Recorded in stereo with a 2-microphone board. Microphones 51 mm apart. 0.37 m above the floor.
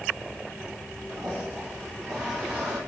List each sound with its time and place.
1.1 s a toilet flushing: 15° right (ahead or behind), 4 m